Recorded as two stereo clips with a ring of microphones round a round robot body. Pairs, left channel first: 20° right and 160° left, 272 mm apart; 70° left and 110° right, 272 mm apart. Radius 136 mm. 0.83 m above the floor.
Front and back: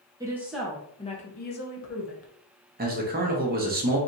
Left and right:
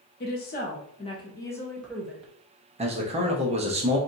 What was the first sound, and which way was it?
A woman speaking, 90° left.